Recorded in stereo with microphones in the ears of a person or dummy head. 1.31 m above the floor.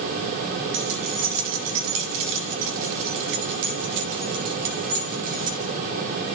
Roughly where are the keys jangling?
Right.